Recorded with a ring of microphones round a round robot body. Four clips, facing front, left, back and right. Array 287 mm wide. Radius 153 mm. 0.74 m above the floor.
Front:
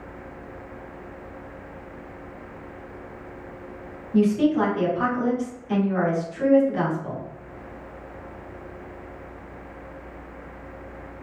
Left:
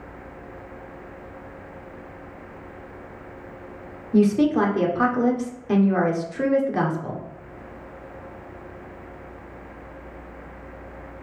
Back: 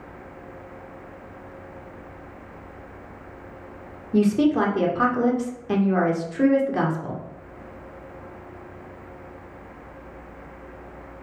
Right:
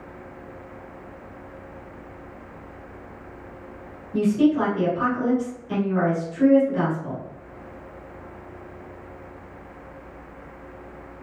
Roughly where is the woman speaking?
Behind left.